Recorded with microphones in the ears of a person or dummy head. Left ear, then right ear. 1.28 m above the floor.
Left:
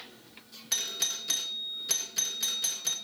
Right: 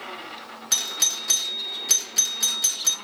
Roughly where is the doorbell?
Centre.